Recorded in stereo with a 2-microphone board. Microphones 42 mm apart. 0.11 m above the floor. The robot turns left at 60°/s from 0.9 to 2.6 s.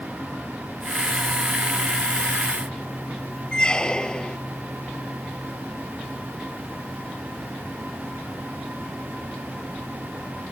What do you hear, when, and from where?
3.5 s a squeak: 20° left (ahead or behind)